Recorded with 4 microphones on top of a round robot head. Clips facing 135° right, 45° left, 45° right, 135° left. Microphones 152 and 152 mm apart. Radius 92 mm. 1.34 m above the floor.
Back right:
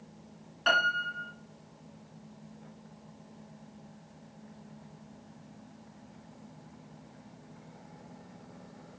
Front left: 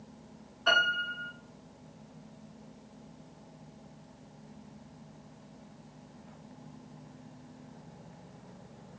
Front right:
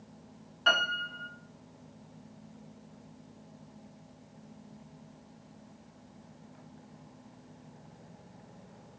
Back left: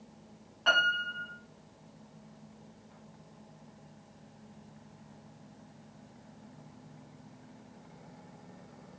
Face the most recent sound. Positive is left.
turn(degrees=-115)